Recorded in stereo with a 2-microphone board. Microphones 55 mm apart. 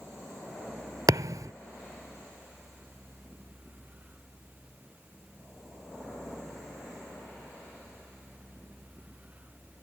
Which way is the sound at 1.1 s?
90° right.